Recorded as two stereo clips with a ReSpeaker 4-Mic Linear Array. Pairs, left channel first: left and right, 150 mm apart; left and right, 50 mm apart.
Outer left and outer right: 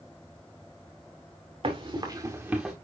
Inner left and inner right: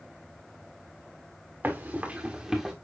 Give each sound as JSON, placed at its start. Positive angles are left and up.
{"t": 1.6, "sound": "running footsteps", "side_deg": -40, "distance_m": 3.0}